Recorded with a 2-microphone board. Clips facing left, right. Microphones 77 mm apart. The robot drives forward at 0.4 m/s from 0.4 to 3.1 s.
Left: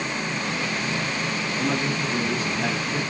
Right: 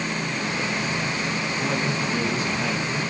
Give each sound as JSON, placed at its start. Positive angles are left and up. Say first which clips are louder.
{"t": 1.6, "sound": "a man speaking", "louder": "left 2 dB", "side_deg": -5, "distance_m": 1.9}